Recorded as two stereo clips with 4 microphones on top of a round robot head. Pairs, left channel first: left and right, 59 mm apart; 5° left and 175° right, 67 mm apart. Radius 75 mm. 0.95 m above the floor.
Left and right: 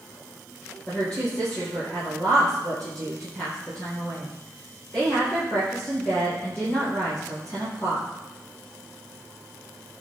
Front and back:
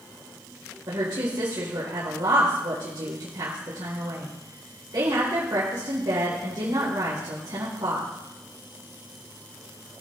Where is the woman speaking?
160° left, 4 m.